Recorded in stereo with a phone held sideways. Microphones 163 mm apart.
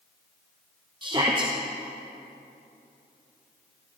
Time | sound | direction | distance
1.0 | a shout | 25° right (ahead or behind) | 0.8 m